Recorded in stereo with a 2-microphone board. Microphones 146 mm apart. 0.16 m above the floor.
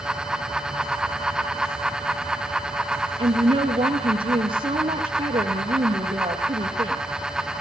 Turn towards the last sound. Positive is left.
turn(degrees=-35)  # may be behind; listen again after turning